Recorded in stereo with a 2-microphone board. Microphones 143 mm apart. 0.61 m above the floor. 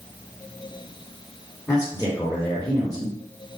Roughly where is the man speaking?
Centre.